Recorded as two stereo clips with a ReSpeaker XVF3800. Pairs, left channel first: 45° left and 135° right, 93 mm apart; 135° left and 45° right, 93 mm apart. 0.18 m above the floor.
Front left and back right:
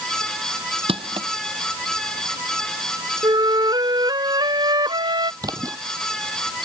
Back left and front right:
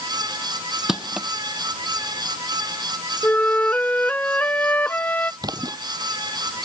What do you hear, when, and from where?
0.9 s crushing: 130° right
3.2 s a flute: 155° right
5.4 s a splash: 90° right